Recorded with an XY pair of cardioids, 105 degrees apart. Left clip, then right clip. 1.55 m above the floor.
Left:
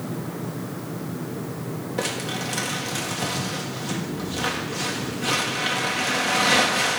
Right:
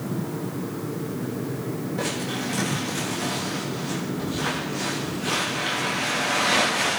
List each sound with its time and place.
2.0 s crumpling: 45° left, 2 m